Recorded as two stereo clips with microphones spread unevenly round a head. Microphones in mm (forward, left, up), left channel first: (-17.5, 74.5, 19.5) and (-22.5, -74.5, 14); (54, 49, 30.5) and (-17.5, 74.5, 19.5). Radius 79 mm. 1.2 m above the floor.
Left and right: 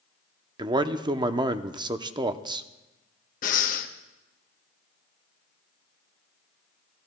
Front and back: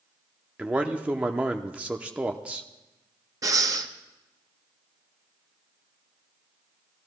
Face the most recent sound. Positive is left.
turn(degrees=115)